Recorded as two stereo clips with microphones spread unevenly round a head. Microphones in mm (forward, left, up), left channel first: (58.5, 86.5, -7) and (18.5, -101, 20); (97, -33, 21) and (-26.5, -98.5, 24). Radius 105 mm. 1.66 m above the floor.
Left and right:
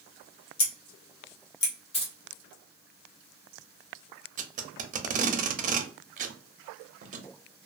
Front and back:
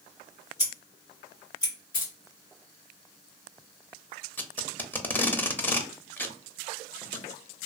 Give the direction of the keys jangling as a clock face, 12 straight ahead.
11 o'clock.